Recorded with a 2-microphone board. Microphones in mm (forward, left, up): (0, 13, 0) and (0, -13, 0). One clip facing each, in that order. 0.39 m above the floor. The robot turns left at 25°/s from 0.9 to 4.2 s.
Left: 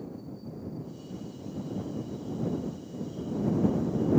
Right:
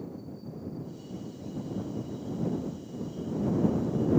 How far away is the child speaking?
No child speaking in this recording.